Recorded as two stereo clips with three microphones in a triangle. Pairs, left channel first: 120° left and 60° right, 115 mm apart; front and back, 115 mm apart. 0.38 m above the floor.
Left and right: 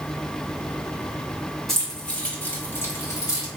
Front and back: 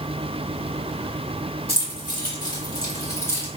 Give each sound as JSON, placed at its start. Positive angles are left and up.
{"t": 1.7, "sound": "keys jangling", "azimuth_deg": 35, "distance_m": 2.0}